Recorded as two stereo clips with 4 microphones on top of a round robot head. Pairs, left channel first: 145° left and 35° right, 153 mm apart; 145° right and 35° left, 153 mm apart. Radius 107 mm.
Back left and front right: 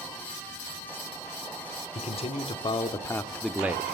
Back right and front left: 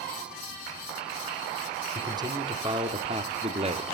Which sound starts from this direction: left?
A man speaking, at 1.9 s.